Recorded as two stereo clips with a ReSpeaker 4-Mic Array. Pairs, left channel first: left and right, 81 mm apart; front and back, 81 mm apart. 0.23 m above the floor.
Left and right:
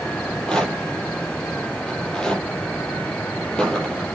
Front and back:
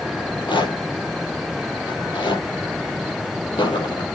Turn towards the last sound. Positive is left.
turn(degrees=10)